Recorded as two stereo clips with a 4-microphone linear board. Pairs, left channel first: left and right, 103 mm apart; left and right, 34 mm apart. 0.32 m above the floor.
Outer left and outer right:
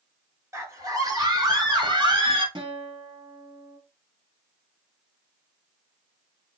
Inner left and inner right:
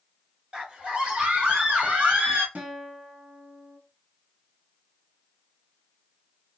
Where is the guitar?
55° right (ahead or behind), 1.5 m.